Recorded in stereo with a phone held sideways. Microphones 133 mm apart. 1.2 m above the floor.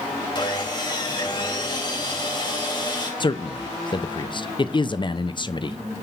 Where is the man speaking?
35° left (ahead or behind), 0.7 m.